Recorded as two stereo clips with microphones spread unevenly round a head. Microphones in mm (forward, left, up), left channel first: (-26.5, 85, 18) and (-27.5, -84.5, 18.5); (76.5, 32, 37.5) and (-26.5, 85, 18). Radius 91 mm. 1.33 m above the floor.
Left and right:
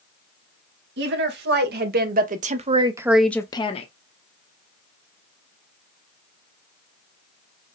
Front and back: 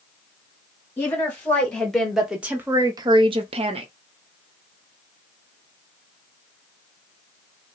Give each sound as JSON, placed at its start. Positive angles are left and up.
{"t": 1.0, "sound": "a woman speaking", "azimuth_deg": -105, "distance_m": 2.0}